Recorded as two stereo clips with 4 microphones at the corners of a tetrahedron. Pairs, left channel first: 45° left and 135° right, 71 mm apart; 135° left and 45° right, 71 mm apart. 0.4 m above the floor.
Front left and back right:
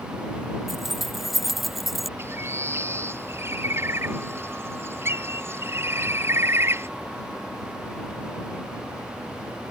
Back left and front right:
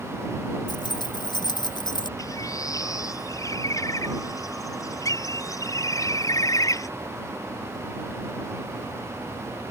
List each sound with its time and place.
0.7 s keys jangling: 140° left
2.2 s a bird: 175° left